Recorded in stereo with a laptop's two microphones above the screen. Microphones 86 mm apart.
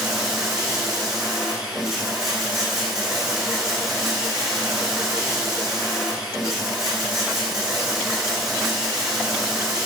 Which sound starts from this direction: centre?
Running water, at 0.0 s.